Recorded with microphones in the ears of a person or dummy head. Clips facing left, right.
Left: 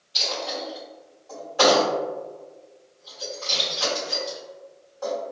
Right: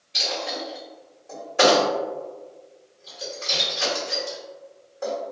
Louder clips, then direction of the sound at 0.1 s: Right 1 dB; 30° right (ahead or behind).